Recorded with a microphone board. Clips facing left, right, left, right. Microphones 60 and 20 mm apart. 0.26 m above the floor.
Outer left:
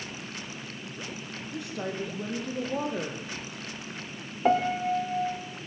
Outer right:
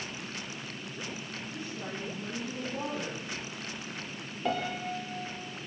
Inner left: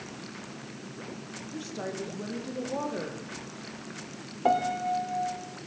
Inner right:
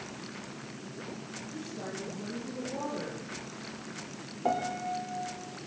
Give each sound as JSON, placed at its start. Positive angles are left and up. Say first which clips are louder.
{"t": 1.5, "sound": "a woman speaking", "louder": "outer left 7 dB, inner left 5 dB", "side_deg": 75, "distance_m": 7.0}
{"t": 4.5, "sound": "a piano", "louder": "outer left 8 dB, inner left 5 dB", "side_deg": 35, "distance_m": 3.0}